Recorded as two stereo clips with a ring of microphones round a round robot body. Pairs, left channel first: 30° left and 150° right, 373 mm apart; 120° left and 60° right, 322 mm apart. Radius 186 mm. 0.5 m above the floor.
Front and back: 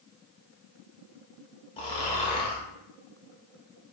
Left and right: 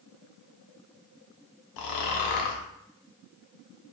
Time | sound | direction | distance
1.8 | snoring | 105° left | 0.6 m